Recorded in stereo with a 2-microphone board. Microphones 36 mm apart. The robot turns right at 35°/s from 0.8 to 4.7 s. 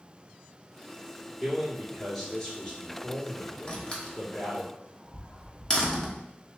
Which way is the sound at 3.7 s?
30° left (ahead or behind).